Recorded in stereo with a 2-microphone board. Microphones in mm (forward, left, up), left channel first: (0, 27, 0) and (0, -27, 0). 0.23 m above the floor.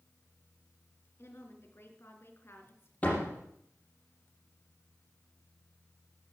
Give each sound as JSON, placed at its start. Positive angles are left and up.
{"t": 1.2, "sound": "a woman speaking", "side_deg": 55, "distance_m": 3.5}
{"t": 3.0, "sound": "a door slam", "side_deg": 30, "distance_m": 6.0}